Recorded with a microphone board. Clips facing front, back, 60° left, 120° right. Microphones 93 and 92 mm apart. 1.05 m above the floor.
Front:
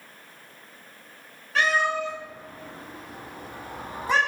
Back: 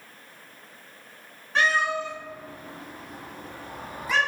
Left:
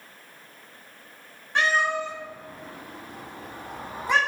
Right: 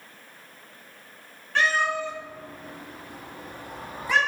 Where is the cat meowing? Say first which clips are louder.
Even, even; 125° left, 1.6 m; by 4.2 s 15° left, 1.0 m.